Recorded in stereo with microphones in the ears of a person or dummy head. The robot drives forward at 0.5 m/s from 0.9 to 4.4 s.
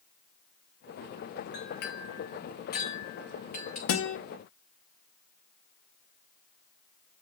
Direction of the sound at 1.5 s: 55° left (ahead or behind).